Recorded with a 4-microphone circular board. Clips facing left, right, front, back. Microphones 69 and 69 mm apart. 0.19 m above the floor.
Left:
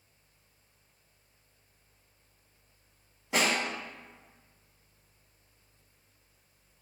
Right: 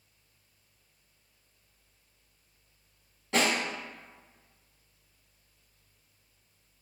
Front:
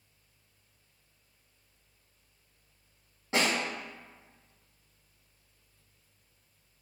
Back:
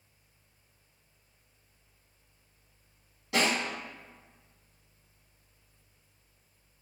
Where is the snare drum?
20° left, 1.9 m.